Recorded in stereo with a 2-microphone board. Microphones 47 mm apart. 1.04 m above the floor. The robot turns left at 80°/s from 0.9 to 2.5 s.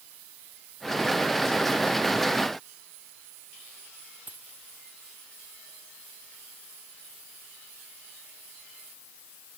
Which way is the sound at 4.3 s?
40° right (ahead or behind).